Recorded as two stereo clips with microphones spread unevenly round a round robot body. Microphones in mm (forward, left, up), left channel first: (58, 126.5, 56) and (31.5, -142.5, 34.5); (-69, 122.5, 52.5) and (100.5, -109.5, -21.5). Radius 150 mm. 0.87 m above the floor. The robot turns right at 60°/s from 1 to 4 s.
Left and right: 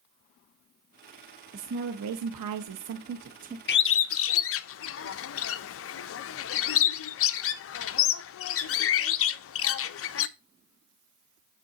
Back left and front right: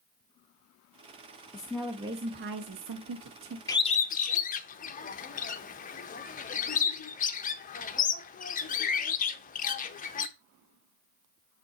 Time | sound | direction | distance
1.5 | a woman speaking | 155° right | 0.7 m
3.7 | a bird | 35° left | 0.6 m